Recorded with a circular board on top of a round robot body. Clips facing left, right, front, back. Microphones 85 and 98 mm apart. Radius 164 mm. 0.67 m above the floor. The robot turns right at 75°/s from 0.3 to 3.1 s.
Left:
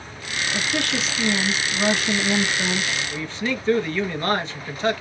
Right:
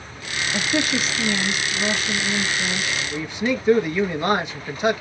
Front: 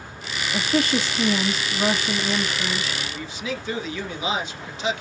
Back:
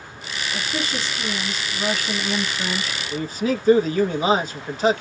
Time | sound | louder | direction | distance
0.5 | a woman speaking | right 3 dB, front 7 dB | 40° right | 1.3 m
3.1 | a man speaking | right 3 dB, back 7 dB | 160° right | 1.3 m